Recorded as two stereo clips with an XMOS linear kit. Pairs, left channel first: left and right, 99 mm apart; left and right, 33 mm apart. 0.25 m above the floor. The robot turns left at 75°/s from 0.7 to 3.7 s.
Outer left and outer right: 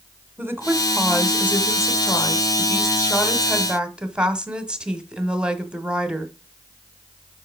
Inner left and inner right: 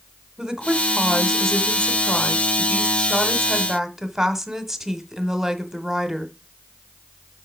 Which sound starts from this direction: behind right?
A woman speaking, at 0.4 s.